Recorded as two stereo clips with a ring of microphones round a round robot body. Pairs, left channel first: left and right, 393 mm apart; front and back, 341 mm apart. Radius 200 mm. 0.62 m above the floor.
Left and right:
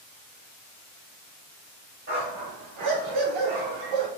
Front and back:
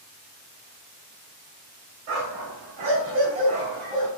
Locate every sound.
2.1 s a dog barking: 155° right, 1.2 m; by 4.1 s 90° right, 1.1 m